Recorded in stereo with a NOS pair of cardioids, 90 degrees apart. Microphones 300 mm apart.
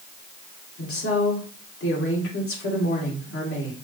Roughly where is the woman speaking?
Ahead left.